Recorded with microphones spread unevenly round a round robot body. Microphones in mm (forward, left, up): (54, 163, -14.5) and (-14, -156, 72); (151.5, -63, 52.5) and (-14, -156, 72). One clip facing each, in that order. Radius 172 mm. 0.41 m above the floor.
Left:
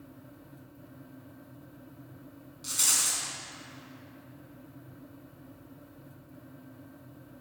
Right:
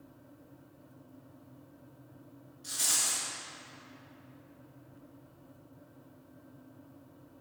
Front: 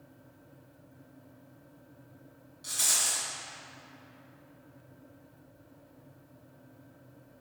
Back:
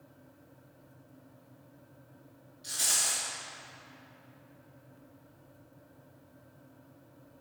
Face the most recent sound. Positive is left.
turn(degrees=70)